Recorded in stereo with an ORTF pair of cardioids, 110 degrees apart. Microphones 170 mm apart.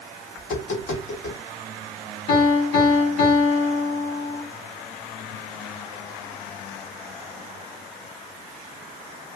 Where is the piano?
55° left, 3 m.